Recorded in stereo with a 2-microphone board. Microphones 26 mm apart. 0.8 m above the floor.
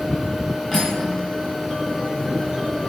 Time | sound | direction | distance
0.7 | cutlery clinking | centre (ahead or behind) | 2.5 m